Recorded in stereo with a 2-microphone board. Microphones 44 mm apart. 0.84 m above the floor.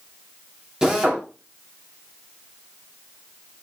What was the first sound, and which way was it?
A drill, 15° right (ahead or behind).